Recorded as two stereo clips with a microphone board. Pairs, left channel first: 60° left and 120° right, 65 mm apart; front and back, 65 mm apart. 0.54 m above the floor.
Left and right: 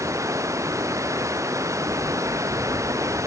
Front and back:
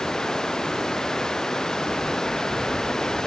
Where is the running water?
80° right.